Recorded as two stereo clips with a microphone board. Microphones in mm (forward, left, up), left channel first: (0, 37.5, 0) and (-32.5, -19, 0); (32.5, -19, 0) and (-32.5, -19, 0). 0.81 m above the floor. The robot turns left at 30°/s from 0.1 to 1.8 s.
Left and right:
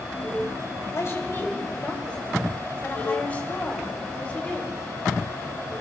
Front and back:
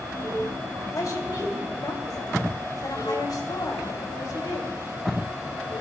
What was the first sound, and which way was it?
A woman speaking, 20° left.